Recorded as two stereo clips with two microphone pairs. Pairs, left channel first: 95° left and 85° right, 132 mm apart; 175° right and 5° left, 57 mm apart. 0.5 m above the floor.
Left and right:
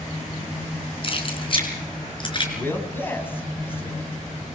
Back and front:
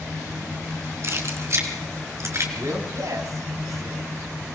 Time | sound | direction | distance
1.0 | keys jangling | 45° left | 4 m
2.6 | a man speaking | 25° left | 4.5 m